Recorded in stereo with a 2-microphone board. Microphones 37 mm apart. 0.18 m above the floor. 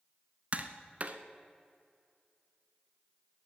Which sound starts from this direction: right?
Tapping, at 0.5 s.